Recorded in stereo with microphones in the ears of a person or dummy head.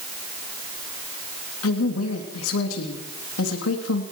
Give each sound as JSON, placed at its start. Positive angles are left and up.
{"t": 1.6, "sound": "a woman speaking", "side_deg": 85, "distance_m": 3.0}